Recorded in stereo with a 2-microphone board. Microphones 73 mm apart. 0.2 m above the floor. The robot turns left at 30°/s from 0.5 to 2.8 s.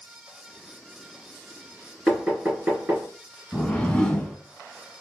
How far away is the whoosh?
About 0.9 m.